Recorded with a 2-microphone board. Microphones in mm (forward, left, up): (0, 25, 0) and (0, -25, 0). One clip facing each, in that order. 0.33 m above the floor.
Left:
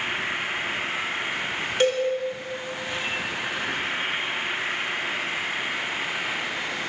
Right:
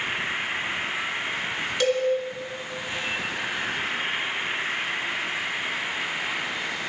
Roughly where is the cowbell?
Left.